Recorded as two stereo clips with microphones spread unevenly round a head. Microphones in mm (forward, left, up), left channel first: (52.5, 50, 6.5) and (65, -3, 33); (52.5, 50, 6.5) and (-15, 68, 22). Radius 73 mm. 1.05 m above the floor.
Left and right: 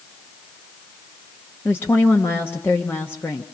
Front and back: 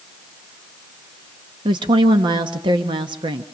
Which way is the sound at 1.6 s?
165° left.